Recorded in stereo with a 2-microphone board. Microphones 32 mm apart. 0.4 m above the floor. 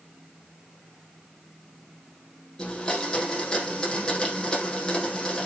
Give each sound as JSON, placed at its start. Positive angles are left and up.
{"t": 2.6, "sound": "a blender", "side_deg": 20, "distance_m": 6.0}